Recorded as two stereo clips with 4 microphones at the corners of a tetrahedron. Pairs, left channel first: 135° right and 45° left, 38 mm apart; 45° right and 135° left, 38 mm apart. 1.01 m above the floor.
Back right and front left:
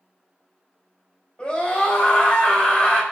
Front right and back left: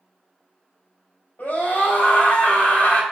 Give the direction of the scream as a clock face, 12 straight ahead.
2 o'clock.